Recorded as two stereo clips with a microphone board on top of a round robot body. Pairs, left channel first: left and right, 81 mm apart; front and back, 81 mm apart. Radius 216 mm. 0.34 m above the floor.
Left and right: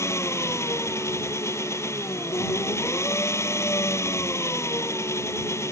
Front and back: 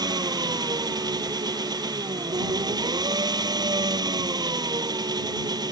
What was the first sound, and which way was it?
An engine running, 145° left.